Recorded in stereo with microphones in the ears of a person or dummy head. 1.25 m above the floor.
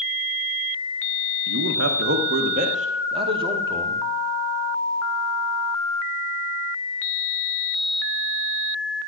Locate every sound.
1.5 s a man speaking: 75° right (ahead or behind), 1.0 m; by 4.0 s 20° right (ahead or behind), 1.7 m